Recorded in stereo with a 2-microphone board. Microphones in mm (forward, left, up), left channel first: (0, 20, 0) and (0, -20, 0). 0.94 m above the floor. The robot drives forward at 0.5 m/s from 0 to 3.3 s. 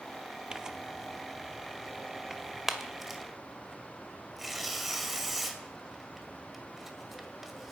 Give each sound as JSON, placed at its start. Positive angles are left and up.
{"t": 0.5, "sound": "tearing paper", "side_deg": -20, "distance_m": 0.7}